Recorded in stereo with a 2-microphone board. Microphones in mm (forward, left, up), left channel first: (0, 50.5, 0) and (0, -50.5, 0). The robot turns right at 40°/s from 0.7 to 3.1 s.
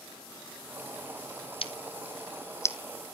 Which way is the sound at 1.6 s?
70° left (ahead or behind).